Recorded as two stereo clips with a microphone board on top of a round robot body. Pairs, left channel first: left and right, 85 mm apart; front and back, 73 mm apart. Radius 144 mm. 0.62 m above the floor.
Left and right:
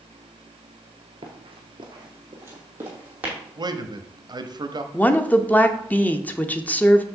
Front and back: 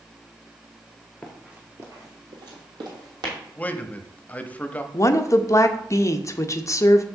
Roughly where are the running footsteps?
Right.